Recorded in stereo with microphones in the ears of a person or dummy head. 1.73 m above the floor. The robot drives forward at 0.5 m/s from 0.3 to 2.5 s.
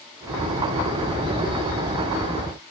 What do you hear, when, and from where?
Only background noise.